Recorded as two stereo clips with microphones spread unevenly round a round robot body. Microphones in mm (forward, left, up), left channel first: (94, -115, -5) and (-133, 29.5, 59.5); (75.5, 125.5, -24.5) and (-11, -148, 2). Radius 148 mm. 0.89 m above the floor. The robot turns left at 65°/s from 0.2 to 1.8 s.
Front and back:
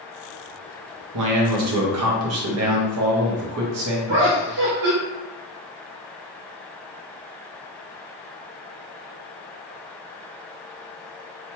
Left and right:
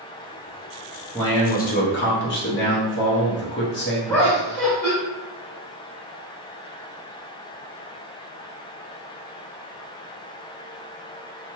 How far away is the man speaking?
About 0.8 m.